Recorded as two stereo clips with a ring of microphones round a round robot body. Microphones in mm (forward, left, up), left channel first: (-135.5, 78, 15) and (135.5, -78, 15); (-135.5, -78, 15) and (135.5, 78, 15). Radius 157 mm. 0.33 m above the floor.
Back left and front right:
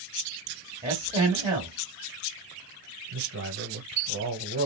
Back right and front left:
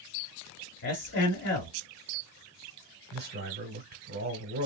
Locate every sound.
0.8 s a man speaking: 105° right, 1.3 m
3.1 s a man speaking: 10° right, 1.4 m